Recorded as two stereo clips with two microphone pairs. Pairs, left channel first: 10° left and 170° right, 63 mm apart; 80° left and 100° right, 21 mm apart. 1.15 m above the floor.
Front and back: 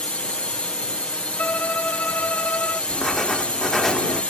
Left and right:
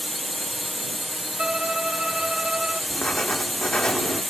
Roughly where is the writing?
Left.